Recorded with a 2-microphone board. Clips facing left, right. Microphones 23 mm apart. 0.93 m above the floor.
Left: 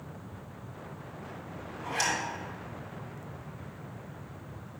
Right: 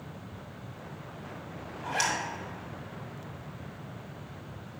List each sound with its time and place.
1.8 s a zipper: 25° right (ahead or behind), 2.0 m